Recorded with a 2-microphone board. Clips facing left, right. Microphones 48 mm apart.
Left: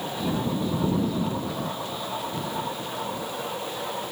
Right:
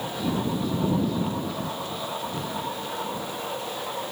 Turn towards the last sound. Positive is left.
No sound to turn to.